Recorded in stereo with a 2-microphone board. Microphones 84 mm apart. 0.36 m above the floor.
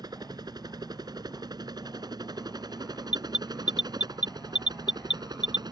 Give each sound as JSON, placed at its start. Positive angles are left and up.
{"t": 0.0, "sound": "a helicopter", "side_deg": -55}
{"t": 3.1, "sound": "an alarm", "side_deg": -15}